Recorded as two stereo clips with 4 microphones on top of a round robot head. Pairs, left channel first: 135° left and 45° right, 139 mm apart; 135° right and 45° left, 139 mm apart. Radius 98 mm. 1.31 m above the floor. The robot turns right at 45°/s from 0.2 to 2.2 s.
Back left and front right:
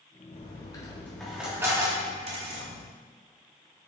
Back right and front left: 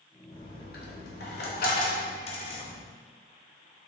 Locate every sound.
0.3 s a dropped coin: 175° right, 1.2 m; by 2.8 s 90° right, 1.2 m